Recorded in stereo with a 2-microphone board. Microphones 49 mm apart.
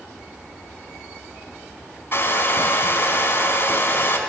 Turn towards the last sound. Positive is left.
turn(degrees=50)  # may be behind; listen again after turning